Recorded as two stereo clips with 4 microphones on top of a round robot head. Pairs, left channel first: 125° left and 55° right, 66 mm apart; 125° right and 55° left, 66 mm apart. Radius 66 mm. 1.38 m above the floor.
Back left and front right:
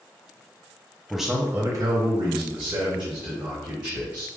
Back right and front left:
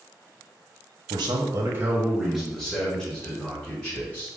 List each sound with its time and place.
1.1 s a man speaking: 40° left, 0.7 m; by 4.3 s 60° right, 2.5 m